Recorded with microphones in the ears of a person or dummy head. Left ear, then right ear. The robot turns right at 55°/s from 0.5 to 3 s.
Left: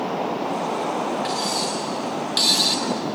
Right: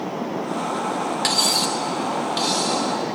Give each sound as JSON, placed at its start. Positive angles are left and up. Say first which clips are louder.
{"t": 1.2, "sound": "cutlery clinking", "louder": "right 4 dB", "azimuth_deg": -45, "distance_m": 1.2}